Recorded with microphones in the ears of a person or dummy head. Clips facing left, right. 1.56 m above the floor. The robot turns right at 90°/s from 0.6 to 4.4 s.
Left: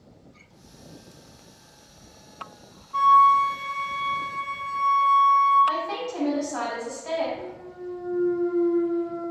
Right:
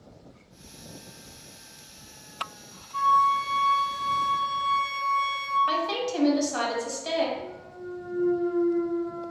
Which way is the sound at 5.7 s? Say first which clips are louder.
Right 1 dB; 50° right (ahead or behind).